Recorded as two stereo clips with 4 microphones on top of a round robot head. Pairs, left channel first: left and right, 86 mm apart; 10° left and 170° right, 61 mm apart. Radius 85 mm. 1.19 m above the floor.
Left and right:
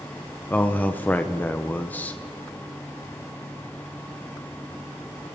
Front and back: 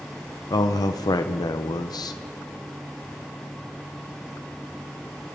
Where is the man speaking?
20° left, 0.6 m.